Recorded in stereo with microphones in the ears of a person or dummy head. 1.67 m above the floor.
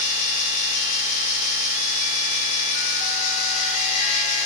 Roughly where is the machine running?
Left.